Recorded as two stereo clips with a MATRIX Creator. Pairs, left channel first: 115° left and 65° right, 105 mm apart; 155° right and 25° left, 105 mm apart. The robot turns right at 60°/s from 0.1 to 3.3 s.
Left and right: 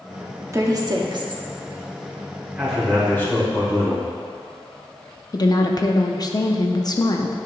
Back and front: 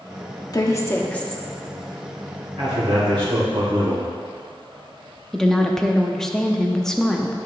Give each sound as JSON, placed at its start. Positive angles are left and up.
{"t": 0.5, "sound": "a woman speaking", "azimuth_deg": -120, "distance_m": 0.9}
{"t": 2.6, "sound": "a man speaking", "azimuth_deg": 10, "distance_m": 2.0}
{"t": 5.3, "sound": "a woman speaking", "azimuth_deg": 120, "distance_m": 0.6}